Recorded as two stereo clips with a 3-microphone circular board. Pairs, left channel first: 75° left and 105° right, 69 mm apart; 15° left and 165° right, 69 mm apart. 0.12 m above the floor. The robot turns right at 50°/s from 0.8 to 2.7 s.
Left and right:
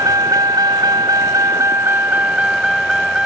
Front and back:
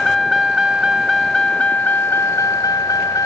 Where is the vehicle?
70° right; by 3.3 s 25° right.